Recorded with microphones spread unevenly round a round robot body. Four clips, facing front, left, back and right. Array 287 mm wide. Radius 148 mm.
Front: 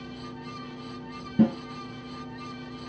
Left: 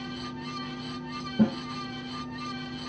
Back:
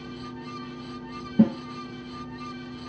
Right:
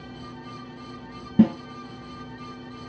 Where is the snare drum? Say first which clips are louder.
Right 6 dB, back 2 dB; 55° right, 1.5 m.